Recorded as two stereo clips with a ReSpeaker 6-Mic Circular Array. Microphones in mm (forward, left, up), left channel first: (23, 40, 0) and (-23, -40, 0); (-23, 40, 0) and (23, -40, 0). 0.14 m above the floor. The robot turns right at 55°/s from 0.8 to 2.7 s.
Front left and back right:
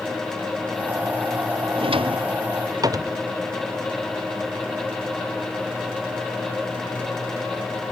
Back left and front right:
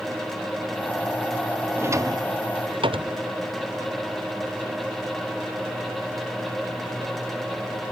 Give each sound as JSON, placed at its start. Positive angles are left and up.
{"t": 1.8, "sound": "a drawer", "azimuth_deg": -125}